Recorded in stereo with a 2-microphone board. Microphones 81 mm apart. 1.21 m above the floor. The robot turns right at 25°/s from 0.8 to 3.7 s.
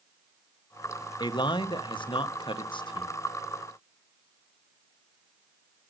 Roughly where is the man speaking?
Ahead left.